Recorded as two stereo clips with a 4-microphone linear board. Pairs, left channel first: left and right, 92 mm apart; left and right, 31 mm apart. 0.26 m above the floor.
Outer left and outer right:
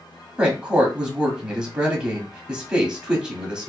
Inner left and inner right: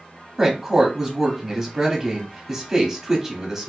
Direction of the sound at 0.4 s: 10° right (ahead or behind).